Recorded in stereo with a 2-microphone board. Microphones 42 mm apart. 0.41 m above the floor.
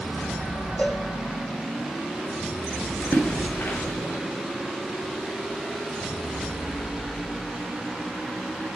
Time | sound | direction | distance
0.8 | a cowbell | 30° left (ahead or behind) | 4.5 m
3.0 | a splash | 50° left (ahead or behind) | 5 m